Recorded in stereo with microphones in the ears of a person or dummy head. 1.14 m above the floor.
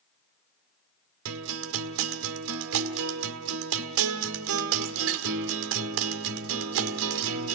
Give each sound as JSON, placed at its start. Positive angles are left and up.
{"t": 1.2, "sound": "a guitar", "side_deg": -60, "distance_m": 1.2}